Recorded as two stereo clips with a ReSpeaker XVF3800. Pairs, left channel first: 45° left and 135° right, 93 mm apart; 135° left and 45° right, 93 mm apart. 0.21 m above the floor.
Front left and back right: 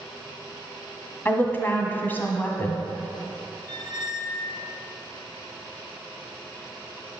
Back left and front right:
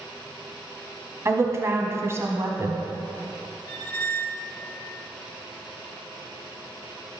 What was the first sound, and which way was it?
A woman speaking, 10° right.